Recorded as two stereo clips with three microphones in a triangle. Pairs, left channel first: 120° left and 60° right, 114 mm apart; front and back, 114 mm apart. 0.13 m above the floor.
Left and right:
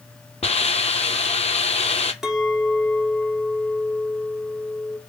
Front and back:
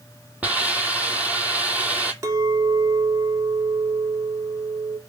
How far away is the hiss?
About 0.6 m.